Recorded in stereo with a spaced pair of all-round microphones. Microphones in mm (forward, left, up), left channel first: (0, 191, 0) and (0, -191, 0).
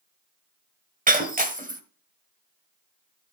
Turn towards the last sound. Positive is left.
turn(degrees=-20)  # may be behind; listen again after turning